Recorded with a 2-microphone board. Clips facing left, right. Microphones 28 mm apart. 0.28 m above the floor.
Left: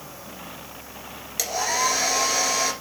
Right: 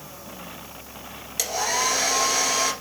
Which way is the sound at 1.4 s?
5° left (ahead or behind).